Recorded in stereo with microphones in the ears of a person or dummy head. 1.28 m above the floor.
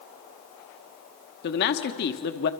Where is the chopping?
No chopping in this recording.